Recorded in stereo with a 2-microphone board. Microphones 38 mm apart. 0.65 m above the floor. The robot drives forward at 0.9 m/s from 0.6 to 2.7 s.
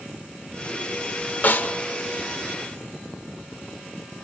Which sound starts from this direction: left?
A snare drum, at 1.4 s.